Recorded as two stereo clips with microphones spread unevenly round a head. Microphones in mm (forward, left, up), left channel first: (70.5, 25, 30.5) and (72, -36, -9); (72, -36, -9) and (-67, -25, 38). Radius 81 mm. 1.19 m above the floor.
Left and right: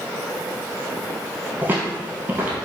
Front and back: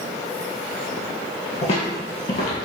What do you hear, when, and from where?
1.6 s footsteps: 10° left, 1.2 m